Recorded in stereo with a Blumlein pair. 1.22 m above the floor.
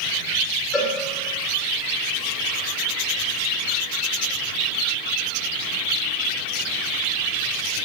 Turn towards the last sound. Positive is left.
turn(degrees=35)